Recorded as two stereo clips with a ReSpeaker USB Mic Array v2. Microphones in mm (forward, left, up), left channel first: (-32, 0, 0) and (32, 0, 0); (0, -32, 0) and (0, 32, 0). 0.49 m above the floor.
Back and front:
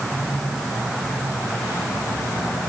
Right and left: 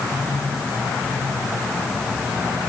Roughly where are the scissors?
I don't hear scissors.